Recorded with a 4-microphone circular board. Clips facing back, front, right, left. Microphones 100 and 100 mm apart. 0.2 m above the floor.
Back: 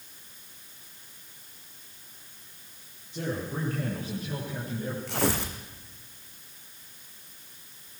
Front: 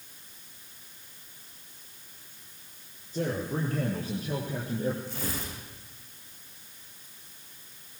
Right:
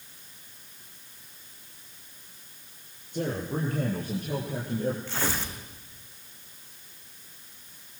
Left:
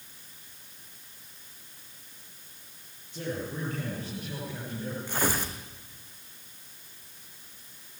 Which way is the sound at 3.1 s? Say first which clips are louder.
Front 2 dB, right 4 dB; 50° right.